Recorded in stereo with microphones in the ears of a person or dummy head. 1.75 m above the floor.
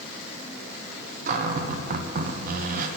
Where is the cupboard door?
50° right (ahead or behind), 0.8 m.